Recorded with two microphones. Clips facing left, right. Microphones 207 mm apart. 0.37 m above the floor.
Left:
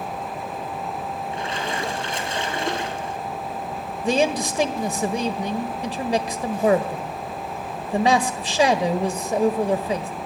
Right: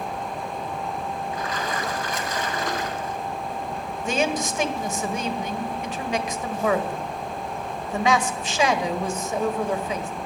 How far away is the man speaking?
About 1.6 m.